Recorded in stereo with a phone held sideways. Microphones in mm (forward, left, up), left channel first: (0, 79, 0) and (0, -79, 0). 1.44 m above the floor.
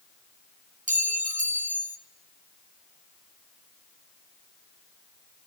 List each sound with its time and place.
0.9 s a clink: 55° right (ahead or behind), 0.8 m